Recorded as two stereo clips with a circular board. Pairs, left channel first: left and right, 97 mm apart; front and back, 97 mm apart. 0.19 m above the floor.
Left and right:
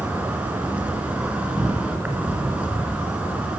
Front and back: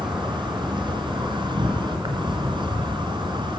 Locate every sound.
0.0 s an insect: 165° right, 3.5 m